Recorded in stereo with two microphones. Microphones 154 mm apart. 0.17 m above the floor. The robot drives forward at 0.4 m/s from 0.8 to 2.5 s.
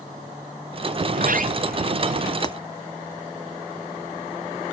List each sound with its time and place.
1.1 s a sliding door: 60° right (ahead or behind); by 2.3 s 65° right (ahead or behind)
2.4 s breaking glass: 25° left (ahead or behind)